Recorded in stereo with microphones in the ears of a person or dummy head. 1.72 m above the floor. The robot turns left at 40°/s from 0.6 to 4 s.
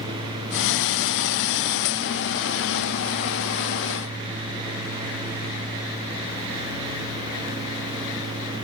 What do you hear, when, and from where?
Only background noise.